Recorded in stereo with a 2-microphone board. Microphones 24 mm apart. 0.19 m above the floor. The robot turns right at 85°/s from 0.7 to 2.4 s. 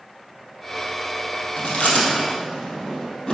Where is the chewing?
70° left (ahead or behind), 3 m; by 3.3 s 35° left (ahead or behind), 3 m.